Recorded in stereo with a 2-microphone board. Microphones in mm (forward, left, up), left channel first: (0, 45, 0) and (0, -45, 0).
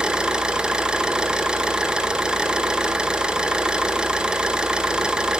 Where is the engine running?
10° right (ahead or behind), 1.2 m.